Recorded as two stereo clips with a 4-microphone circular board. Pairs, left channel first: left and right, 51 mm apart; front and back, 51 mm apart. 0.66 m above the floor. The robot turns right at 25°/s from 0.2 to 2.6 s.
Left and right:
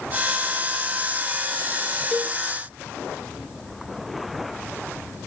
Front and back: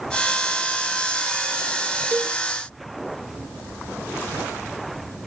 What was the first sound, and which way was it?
A cowbell, 170° left.